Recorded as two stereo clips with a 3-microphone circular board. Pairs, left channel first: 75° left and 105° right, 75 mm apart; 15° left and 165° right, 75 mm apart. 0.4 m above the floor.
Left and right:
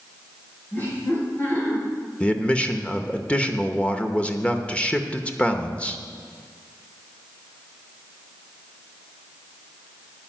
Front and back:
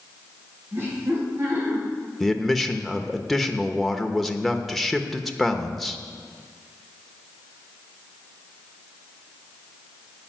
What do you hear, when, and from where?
0.7 s laughter: 135° left, 6 m
2.2 s a man speaking: 100° left, 0.9 m